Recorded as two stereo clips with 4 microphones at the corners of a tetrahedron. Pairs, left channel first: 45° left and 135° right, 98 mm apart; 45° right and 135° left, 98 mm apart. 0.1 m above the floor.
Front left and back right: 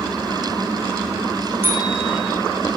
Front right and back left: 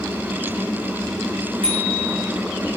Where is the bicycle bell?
160° left, 4.5 m.